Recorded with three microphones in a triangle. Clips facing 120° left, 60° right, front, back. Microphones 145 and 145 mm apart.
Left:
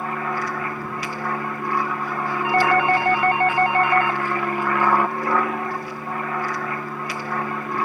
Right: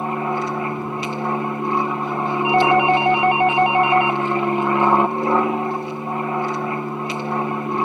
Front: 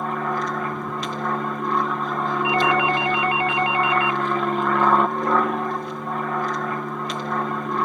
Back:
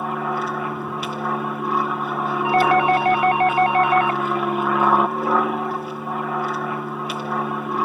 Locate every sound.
0.0 s an aircraft: 100° right
2.4 s a doorbell: 135° right